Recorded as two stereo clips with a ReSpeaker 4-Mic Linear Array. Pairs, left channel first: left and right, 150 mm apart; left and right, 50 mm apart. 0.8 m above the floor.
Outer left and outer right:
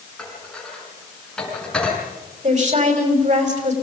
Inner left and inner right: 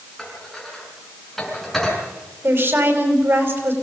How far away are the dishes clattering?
About 5.5 m.